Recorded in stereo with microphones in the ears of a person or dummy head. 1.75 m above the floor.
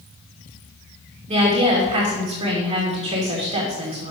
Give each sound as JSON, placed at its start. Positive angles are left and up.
{"t": 1.3, "sound": "a woman speaking", "side_deg": -30, "distance_m": 2.5}